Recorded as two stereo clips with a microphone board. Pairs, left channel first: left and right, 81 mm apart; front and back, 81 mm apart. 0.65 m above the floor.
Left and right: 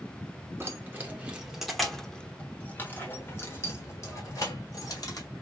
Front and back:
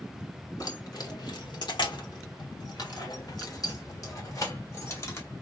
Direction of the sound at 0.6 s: 30° right.